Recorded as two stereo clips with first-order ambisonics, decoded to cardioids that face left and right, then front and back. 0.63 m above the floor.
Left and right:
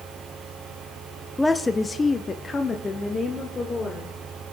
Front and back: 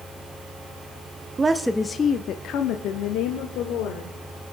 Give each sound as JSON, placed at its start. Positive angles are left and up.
{"t": 1.4, "sound": "a woman speaking", "azimuth_deg": 160, "distance_m": 0.6}